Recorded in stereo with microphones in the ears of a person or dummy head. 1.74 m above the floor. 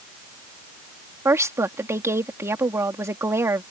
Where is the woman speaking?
20° right (ahead or behind).